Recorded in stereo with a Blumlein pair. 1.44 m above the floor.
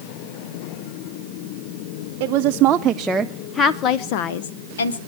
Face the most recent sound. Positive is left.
turn(degrees=70)